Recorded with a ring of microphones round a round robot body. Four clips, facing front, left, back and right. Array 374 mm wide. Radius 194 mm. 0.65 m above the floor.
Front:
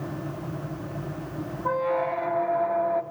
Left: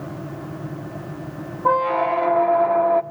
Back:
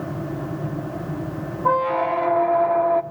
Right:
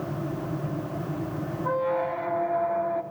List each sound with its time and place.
1.6 s a squeak: 120° left, 0.7 m